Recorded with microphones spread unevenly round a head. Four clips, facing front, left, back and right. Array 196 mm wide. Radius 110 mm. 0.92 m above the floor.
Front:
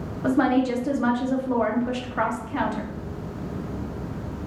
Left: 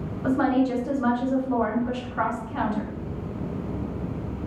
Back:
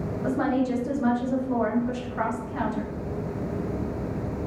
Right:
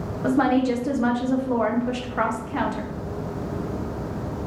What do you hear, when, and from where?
0.2 s a woman speaking: 70° right, 0.8 m